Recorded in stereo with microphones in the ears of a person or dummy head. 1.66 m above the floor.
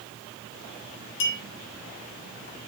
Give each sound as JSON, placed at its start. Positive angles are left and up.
{"t": 1.2, "sound": "a clink", "side_deg": 65, "distance_m": 4.0}